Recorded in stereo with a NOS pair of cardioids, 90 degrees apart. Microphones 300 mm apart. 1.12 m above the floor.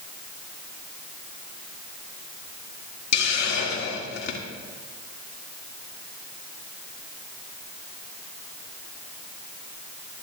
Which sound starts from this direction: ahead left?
A hiss, at 3.1 s.